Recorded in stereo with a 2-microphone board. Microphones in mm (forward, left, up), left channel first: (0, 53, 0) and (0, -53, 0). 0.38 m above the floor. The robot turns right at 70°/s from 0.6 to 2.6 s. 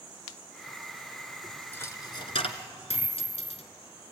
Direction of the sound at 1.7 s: 20° left (ahead or behind).